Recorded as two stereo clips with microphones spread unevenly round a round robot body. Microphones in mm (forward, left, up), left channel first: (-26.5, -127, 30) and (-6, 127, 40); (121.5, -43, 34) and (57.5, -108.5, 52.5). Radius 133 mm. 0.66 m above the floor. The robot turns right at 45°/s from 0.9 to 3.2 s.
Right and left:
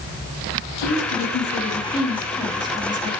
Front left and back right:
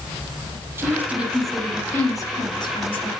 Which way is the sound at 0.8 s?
70° right.